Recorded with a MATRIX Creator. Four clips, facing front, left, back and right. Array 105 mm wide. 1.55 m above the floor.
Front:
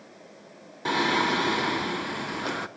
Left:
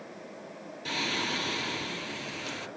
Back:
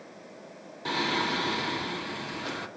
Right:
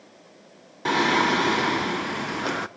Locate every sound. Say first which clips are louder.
0.8 s singing: right 13 dB, front 5 dB; 70° right, 0.8 m